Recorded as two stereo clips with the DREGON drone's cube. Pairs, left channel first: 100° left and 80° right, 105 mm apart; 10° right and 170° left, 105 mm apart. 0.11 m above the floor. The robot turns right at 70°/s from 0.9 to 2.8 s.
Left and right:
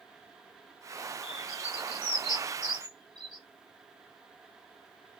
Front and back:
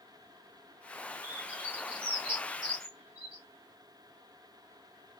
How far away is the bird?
About 3 m.